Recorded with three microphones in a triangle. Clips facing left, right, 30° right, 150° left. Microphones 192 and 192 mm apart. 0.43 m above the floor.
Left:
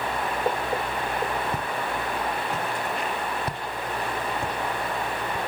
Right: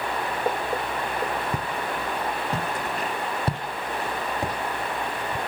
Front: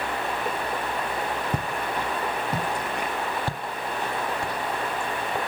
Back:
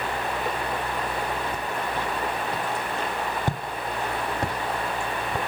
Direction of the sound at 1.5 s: 15° right.